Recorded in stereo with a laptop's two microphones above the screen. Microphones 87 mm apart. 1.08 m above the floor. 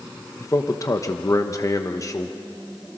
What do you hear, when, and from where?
0.4 s a man speaking: 40° left (ahead or behind), 1.1 m